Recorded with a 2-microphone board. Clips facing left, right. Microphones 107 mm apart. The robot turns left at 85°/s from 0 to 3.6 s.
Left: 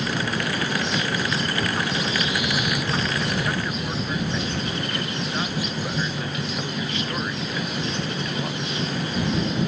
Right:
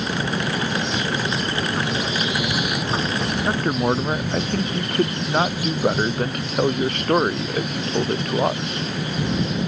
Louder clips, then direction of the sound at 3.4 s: Right 7 dB; 35° right (ahead or behind).